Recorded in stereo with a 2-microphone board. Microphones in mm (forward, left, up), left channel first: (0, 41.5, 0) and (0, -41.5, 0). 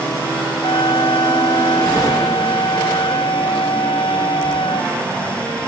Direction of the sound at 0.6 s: 75° left (ahead or behind).